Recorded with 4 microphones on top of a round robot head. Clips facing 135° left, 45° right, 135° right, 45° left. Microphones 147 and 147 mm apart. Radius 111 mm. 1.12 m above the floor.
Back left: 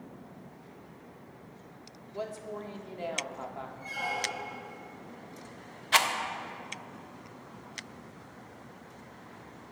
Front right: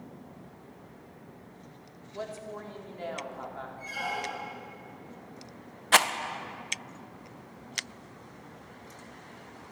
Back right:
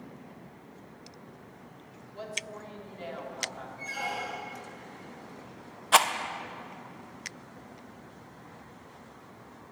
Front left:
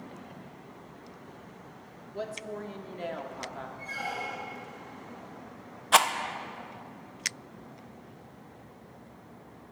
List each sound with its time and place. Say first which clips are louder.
2.1 s a woman speaking: back left 1 dB, front left 5 dB; 60° left, 1.0 m
3.8 s a squeak: front right 1 dB, back right 2 dB; 135° right, 1.3 m
5.9 s a rattle: front right 3 dB, even; 45° right, 0.5 m